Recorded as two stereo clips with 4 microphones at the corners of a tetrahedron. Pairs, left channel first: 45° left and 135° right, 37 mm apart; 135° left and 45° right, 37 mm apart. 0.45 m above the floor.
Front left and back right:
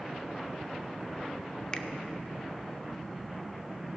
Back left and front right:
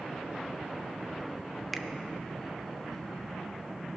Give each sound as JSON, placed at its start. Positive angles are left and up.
{"t": 1.7, "sound": "a finger snap", "azimuth_deg": 50, "distance_m": 0.6}